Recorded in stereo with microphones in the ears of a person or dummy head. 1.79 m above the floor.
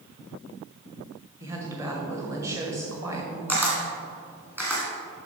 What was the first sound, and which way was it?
A woman speaking, 15° right (ahead or behind).